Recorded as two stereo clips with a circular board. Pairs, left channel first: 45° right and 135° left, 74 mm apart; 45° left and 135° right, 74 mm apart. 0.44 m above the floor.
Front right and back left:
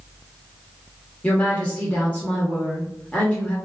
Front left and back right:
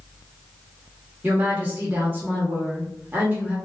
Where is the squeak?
No squeak in this recording.